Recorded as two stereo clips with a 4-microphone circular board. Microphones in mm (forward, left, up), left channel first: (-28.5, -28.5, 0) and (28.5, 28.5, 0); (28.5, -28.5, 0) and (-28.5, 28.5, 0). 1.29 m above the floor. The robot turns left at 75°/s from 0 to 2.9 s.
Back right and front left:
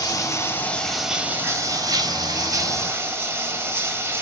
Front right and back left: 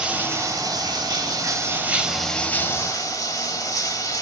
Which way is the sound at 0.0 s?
150° right.